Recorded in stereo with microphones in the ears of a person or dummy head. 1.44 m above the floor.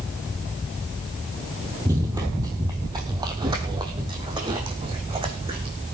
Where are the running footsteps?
15° right (ahead or behind), 2.0 m; by 5.8 s 25° right (ahead or behind), 4 m.